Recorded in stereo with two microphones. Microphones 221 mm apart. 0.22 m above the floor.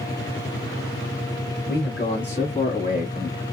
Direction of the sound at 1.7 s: 45° left (ahead or behind).